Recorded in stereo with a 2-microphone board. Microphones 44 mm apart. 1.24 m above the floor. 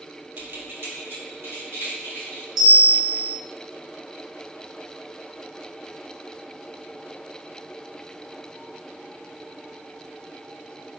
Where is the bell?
5° right (ahead or behind), 1.3 m.